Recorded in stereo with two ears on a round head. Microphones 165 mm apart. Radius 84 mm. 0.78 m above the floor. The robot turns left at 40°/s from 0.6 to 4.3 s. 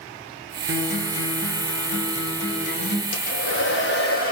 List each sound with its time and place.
0.7 s a guitar: 140° left, 7 m; by 3.0 s 45° left, 7 m
3.1 s a hair dryer: 95° left, 5.5 m; by 4.3 s 45° left, 5.5 m